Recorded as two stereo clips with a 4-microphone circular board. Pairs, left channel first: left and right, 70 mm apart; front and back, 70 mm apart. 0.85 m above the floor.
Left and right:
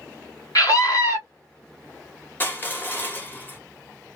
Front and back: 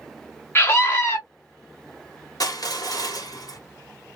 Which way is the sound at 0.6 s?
55° left.